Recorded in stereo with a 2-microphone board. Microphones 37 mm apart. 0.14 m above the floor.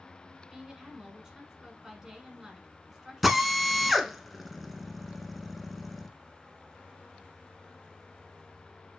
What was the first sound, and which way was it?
A woman speaking, 15° right (ahead or behind).